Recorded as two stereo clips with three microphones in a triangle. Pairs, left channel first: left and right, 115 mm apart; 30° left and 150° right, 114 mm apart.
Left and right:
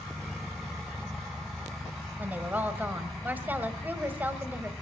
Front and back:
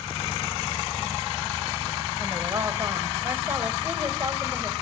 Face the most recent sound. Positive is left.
turn(degrees=-135)